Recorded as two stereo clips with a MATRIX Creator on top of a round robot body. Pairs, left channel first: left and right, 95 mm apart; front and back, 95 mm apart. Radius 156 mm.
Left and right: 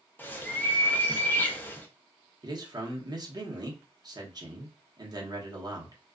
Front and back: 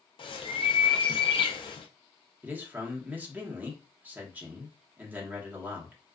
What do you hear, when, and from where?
0.2 s a bird: 20° left, 0.6 m
2.4 s a man speaking: 115° right, 1.0 m